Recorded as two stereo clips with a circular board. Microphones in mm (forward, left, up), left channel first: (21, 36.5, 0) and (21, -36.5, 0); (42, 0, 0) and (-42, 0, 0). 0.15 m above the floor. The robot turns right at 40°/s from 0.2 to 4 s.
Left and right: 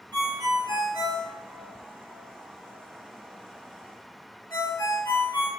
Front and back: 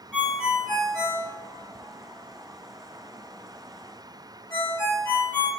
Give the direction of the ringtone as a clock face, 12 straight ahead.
3 o'clock.